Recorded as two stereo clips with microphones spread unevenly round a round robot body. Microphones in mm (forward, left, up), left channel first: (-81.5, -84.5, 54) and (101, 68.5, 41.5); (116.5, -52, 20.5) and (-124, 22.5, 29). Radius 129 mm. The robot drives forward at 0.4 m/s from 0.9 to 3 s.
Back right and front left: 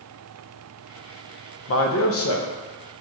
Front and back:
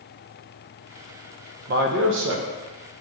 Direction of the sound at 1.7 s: 150° right.